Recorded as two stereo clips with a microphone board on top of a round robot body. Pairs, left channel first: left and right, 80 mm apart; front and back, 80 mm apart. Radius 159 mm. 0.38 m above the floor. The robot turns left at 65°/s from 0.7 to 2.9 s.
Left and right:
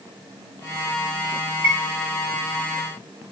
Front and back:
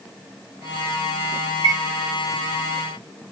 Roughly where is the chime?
Behind right.